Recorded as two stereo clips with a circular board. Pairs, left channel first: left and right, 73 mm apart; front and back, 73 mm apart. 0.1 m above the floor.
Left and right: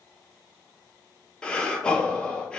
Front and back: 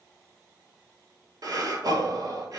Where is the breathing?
165° left, 0.5 m.